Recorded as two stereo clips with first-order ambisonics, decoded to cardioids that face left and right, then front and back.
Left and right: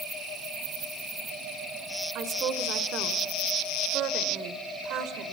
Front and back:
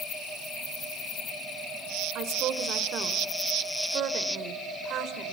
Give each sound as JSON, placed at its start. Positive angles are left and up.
{"t": 2.1, "sound": "a woman speaking", "azimuth_deg": -135, "distance_m": 1.8}